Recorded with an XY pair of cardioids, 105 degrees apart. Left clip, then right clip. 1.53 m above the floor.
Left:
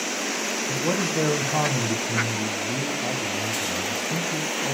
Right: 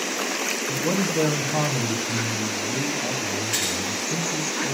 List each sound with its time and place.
0.7 s a man speaking: 5° left, 1.4 m